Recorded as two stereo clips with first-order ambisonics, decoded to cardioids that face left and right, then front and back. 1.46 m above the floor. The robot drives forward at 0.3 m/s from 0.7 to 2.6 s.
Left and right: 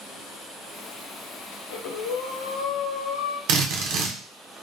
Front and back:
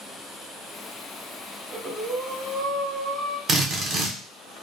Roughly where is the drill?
Behind right.